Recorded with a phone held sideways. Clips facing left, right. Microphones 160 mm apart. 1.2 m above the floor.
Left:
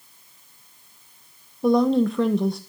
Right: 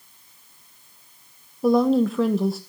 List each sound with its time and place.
1.6 s a woman speaking: 5° right (ahead or behind), 0.7 m